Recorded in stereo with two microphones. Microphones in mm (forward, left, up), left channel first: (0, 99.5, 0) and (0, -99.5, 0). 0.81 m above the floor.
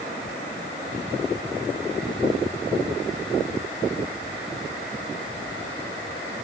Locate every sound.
Only background noise.